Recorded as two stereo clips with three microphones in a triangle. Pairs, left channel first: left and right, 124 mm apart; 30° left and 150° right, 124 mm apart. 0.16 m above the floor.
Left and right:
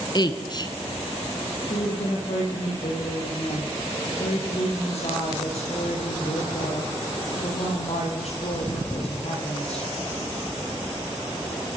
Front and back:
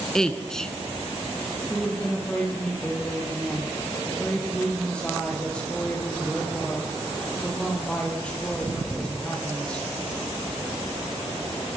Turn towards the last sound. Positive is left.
turn(degrees=110)